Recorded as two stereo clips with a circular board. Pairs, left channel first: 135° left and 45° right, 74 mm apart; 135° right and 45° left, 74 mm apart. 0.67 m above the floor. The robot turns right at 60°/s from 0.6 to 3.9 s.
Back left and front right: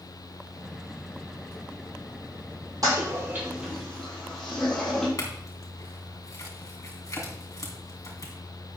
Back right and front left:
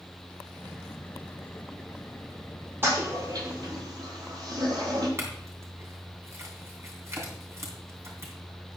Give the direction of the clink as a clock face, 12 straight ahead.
9 o'clock.